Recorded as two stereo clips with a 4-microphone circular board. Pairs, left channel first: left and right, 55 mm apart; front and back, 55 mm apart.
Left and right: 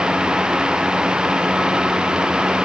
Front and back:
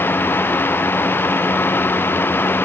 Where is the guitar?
I don't hear a guitar.